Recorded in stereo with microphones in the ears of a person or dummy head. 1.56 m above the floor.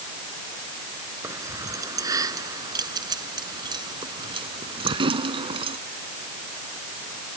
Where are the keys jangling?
20° right (ahead or behind); by 5.8 s 30° right (ahead or behind).